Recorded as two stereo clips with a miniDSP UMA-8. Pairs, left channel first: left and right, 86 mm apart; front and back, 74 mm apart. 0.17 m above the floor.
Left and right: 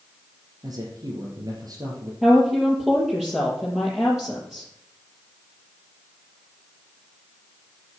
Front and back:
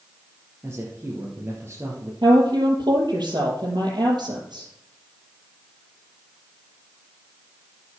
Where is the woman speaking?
Straight behind, 5 m.